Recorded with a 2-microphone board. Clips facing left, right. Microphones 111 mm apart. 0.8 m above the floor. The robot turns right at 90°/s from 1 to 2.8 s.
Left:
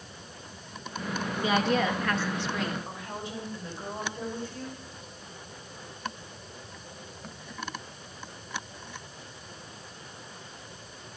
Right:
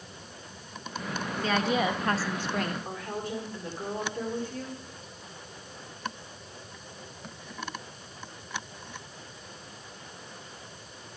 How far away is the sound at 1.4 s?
About 0.6 m.